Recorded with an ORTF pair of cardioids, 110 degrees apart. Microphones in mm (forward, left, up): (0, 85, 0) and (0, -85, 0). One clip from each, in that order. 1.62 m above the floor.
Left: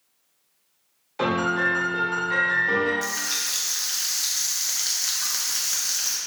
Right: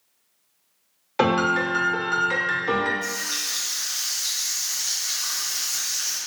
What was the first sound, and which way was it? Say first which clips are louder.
A piano: right 2 dB; 45° right.